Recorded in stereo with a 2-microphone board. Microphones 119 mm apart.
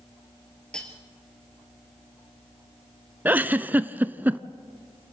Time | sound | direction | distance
0.7 | cutlery clinking | 5° left (ahead or behind) | 2.5 m
3.2 | a giggle | 15° right (ahead or behind) | 0.5 m